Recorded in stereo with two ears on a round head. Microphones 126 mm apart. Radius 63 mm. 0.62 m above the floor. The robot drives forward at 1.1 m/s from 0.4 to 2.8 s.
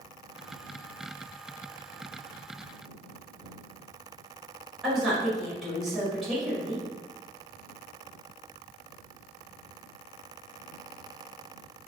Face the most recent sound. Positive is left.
turn(degrees=0)  # may be behind; listen again after turning